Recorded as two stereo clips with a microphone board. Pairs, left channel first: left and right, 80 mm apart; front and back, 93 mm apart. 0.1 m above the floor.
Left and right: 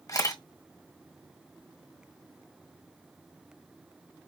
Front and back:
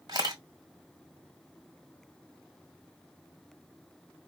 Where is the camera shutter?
135° left, 1.4 m.